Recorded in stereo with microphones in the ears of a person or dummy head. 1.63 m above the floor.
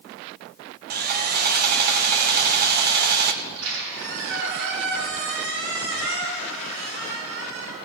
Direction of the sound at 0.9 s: 50° right (ahead or behind).